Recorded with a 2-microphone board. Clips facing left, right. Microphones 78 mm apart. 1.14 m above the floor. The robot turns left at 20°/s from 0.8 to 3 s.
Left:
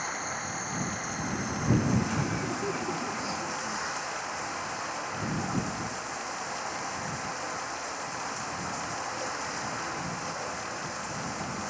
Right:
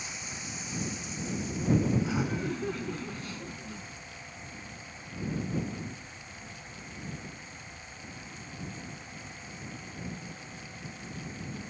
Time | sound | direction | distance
0.0 | running water | 130° left | ?
2.0 | laughter | 10° right (ahead or behind) | ?